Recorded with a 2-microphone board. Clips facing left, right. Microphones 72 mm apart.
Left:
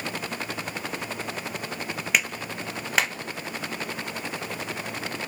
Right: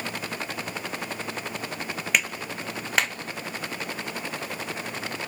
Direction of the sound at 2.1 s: Centre (ahead or behind).